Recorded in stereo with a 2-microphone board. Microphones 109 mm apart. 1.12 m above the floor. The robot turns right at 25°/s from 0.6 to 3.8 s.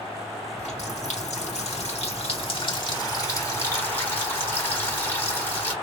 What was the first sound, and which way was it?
A running tap, 80° left.